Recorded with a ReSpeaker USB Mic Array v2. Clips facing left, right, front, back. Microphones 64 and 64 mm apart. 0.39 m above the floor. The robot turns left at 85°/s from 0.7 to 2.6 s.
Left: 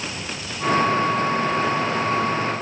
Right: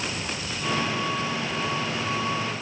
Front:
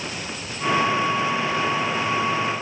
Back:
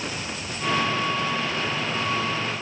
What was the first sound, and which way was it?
Only background noise.